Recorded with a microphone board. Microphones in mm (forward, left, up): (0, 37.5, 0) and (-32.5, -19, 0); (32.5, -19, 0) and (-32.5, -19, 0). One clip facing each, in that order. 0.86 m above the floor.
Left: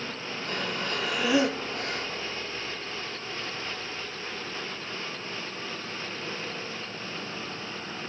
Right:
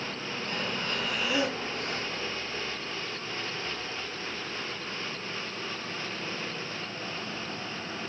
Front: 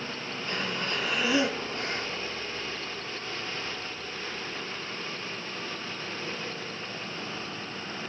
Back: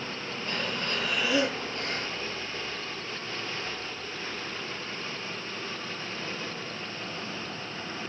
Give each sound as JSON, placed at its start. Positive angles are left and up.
{"t": 0.5, "sound": "breathing", "azimuth_deg": 65, "distance_m": 1.4}